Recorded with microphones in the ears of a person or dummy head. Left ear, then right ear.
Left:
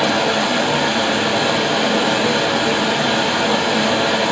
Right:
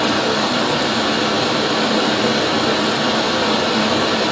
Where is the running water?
35° left (ahead or behind), 1.2 m.